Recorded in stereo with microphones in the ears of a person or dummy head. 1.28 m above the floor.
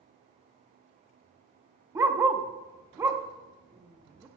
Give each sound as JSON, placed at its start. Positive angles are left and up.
{"t": 1.9, "sound": "a dog barking", "side_deg": -15, "distance_m": 0.7}